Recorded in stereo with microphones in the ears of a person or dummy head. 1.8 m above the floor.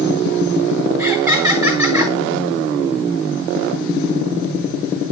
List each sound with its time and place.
1.0 s laughter: 10° right (ahead or behind), 4 m